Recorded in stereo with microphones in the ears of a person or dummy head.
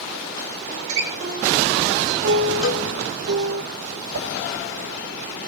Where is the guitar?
90° right, 3 m.